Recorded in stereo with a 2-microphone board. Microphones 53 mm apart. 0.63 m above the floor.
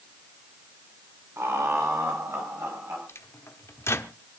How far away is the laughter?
About 2.5 m.